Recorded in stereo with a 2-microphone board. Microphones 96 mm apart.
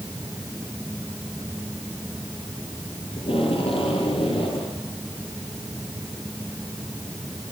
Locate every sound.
3.2 s tape being pulled: 70° left (ahead or behind), 8.5 m